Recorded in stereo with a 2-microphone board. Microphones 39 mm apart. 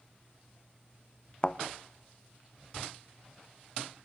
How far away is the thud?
About 0.8 m.